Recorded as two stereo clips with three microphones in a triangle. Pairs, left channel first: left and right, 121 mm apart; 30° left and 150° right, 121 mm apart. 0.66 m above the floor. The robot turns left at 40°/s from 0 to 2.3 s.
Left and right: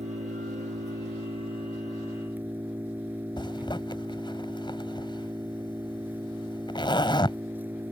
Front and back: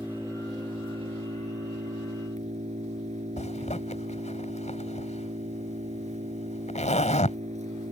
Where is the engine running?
75° right; by 7.9 s 165° right.